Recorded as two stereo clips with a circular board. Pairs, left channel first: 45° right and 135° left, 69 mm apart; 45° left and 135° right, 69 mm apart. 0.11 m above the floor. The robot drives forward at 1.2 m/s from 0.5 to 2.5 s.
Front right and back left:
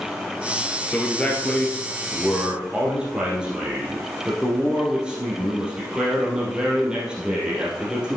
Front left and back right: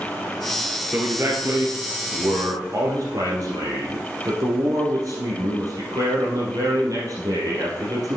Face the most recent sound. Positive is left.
turn(degrees=-150)